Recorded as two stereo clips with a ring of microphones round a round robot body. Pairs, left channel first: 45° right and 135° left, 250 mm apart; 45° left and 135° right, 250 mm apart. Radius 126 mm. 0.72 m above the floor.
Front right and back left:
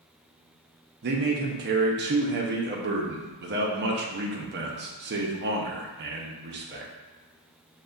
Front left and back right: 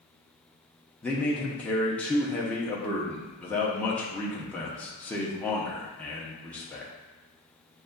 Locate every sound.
1.0 s a man speaking: 125° left, 0.6 m